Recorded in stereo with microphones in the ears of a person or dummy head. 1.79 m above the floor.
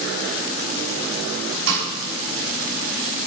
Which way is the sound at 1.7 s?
75° right (ahead or behind).